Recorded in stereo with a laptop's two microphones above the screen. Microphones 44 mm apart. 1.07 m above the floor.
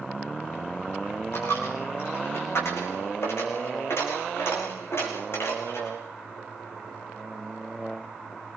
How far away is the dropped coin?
About 5 m.